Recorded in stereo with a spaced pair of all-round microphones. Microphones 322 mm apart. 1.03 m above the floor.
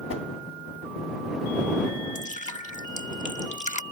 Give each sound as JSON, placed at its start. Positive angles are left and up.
{"t": 0.1, "sound": "a whoosh", "side_deg": 45}
{"t": 2.1, "sound": "dripping", "side_deg": 25}